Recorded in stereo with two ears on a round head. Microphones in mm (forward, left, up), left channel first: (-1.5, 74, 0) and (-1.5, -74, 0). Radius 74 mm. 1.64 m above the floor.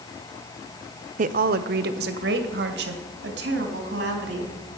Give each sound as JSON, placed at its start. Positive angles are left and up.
{"t": 1.2, "sound": "a woman speaking", "side_deg": -45, "distance_m": 0.5}